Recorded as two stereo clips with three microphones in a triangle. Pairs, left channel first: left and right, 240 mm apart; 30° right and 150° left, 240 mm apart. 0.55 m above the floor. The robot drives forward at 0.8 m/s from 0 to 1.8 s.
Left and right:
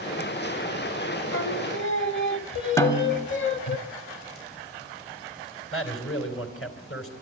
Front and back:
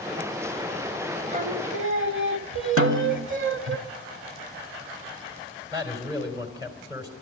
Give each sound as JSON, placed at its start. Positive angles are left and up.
{"t": 1.3, "sound": "singing", "azimuth_deg": 95, "distance_m": 0.7}
{"t": 2.8, "sound": "a snare drum", "azimuth_deg": 165, "distance_m": 0.9}
{"t": 5.7, "sound": "a man speaking", "azimuth_deg": 80, "distance_m": 3.5}